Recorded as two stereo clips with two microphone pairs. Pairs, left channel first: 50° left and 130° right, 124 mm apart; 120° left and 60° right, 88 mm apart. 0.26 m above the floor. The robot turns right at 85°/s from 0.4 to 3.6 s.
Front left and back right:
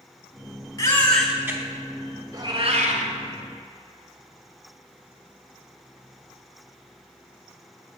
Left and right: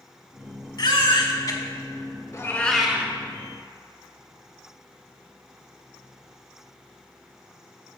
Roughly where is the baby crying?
Left.